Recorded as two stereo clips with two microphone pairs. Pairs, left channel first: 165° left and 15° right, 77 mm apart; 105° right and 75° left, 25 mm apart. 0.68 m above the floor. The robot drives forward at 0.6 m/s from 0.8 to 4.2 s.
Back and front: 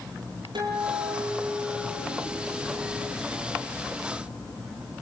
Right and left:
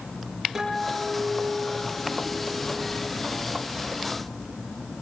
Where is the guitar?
Straight ahead, 9 m; by 3.1 s 5° left, 7.5 m.